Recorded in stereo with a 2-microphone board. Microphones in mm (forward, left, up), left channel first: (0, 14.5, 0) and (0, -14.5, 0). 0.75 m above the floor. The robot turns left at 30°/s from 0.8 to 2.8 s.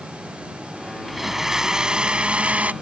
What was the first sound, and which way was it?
A blender, 5° right.